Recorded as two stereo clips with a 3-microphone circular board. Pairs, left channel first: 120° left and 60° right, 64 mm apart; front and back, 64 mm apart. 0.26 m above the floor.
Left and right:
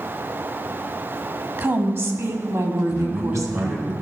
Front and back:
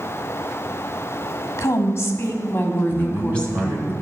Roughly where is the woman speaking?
Ahead.